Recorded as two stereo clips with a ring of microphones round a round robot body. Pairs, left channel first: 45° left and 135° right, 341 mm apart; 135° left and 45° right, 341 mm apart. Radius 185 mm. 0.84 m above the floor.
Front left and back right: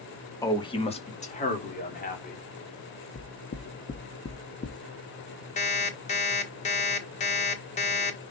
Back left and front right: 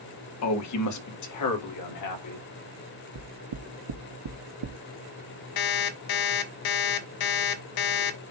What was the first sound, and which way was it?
A man speaking, 125° left.